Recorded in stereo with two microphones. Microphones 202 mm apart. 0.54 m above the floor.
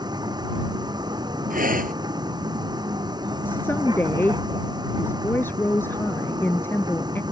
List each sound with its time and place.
0.0 s a vehicle: 20° right (ahead or behind)
1.5 s breathing: 45° right (ahead or behind)
3.5 s a woman speaking: 10° left (ahead or behind)